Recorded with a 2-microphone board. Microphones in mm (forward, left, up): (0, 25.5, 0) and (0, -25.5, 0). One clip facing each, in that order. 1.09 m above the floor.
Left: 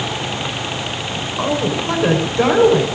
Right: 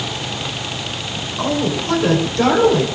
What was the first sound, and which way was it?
A woman speaking, 15° left (ahead or behind).